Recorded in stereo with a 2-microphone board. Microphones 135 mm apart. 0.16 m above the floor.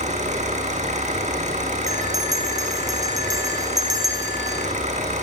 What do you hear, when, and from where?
0.0 s an engine running: 60° right (ahead or behind), 5 m
1.9 s a bell: 25° right (ahead or behind), 4.5 m